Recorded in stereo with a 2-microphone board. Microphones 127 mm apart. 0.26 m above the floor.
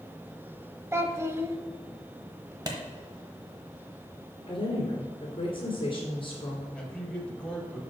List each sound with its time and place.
0.9 s a child speaking: 20° right (ahead or behind), 0.6 m
2.7 s a clap: 35° right (ahead or behind), 1.1 m
4.5 s a woman speaking: 45° left (ahead or behind), 2.5 m
6.8 s a man speaking: 10° left (ahead or behind), 1.2 m